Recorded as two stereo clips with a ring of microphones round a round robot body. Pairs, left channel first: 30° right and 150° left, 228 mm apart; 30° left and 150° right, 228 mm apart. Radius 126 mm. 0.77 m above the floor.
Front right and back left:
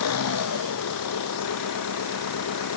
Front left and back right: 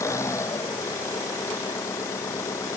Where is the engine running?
50° right.